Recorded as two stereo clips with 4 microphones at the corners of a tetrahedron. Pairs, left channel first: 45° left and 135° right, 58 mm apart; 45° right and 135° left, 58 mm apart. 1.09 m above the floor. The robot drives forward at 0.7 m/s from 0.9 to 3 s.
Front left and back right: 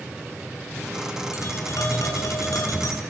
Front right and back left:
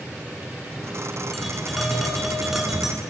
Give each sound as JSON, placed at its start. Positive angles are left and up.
{"t": 1.3, "sound": "tapping", "azimuth_deg": 45, "distance_m": 8.0}